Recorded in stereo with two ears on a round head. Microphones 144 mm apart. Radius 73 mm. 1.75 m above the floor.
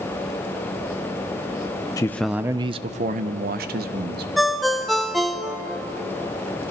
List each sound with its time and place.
2.0 s a man speaking: 20° left (ahead or behind), 0.7 m; by 4.3 s 70° right (ahead or behind), 1.8 m
4.4 s a ringtone: centre (ahead or behind), 0.9 m